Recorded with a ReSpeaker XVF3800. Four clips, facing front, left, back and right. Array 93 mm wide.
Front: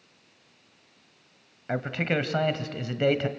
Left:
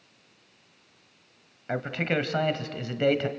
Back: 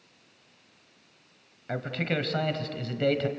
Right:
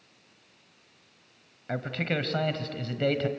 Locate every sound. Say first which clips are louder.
1.7 s a man speaking: left 3 dB, front 3 dB; 40° left, 1.1 m